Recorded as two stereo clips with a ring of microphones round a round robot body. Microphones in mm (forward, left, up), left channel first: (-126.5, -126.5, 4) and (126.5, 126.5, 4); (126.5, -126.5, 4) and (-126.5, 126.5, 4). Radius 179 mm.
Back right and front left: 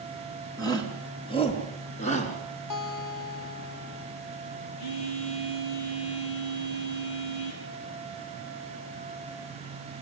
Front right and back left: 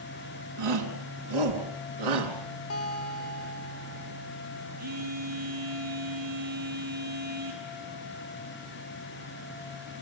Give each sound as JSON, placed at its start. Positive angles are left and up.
{"t": 0.6, "sound": "a shout", "azimuth_deg": 145, "distance_m": 4.0}
{"t": 2.7, "sound": "a guitar", "azimuth_deg": -95, "distance_m": 2.5}
{"t": 4.8, "sound": "a phone buzzing", "azimuth_deg": -160, "distance_m": 6.0}